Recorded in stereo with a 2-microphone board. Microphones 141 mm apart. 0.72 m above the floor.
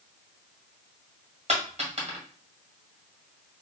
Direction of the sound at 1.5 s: 55° right (ahead or behind).